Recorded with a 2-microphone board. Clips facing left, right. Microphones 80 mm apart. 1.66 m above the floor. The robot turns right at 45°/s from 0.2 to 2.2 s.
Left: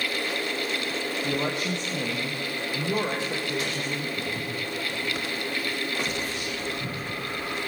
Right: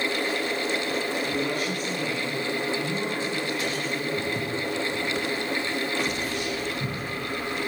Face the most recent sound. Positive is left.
turn(degrees=-25)  # may be behind; listen again after turning